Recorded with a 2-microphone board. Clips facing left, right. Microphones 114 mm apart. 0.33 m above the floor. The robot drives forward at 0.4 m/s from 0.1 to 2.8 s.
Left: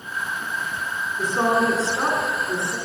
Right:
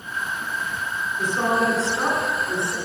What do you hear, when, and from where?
1.2 s a woman speaking: 35° left (ahead or behind), 2.5 m; by 2.8 s 30° left (ahead or behind), 3 m